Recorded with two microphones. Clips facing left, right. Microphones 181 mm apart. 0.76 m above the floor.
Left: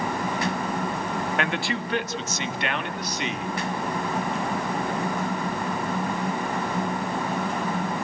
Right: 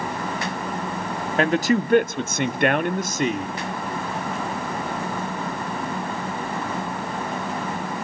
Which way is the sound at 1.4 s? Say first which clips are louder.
Right 8 dB; 35° right (ahead or behind).